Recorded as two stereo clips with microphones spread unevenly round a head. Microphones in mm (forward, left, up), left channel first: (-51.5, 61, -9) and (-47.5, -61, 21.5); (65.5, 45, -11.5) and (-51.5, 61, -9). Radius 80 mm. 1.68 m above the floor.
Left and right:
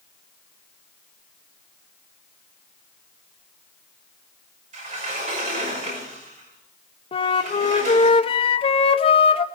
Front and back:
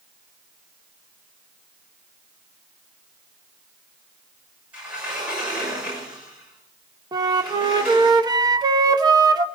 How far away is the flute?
About 1.1 m.